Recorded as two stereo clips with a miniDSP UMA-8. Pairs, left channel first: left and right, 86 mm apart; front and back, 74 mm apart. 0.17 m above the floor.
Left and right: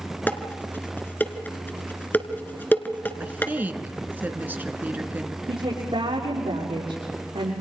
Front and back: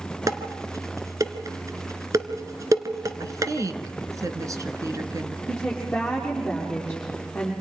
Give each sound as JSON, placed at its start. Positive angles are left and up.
{"t": 0.3, "sound": "dishes clattering", "azimuth_deg": 155, "distance_m": 1.4}
{"t": 3.2, "sound": "a woman speaking", "azimuth_deg": -155, "distance_m": 1.8}
{"t": 5.5, "sound": "a woman speaking", "azimuth_deg": -85, "distance_m": 7.0}